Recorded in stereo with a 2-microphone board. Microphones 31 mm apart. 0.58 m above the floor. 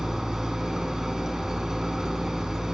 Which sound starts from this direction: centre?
An engine running, at 0.0 s.